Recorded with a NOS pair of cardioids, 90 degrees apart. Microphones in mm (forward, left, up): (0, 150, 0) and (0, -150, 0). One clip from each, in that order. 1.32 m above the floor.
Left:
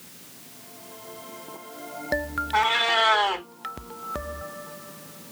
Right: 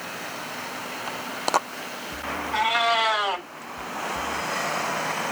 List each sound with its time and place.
2.5 s a cat meowing: 15° left, 1.6 m